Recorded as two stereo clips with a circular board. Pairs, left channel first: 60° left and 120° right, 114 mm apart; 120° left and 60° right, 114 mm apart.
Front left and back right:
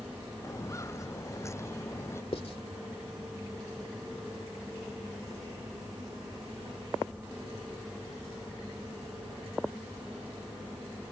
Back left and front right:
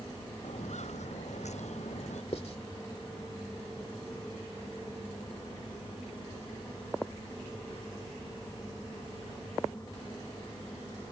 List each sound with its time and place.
0.4 s footsteps: 125° left; by 2.2 s 130° left
2.3 s writing: 95° left